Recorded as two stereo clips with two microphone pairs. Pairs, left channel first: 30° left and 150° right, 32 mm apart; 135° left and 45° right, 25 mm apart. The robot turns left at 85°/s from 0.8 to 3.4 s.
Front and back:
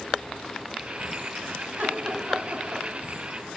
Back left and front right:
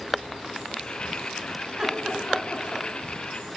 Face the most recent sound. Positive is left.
turn(degrees=120)